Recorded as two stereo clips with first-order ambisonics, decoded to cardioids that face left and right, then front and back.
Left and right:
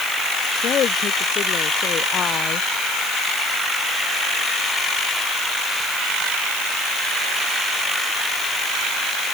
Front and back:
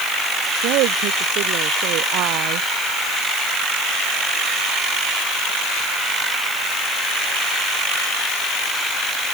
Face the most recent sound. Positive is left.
turn(degrees=150)